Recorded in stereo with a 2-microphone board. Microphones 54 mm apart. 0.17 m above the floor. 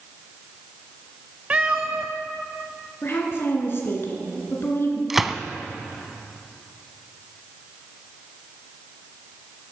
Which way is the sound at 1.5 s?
20° right (ahead or behind).